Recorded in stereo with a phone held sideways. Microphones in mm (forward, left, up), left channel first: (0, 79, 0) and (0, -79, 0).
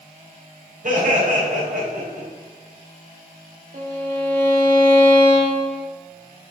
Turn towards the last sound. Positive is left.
turn(degrees=-55)  # may be behind; listen again after turning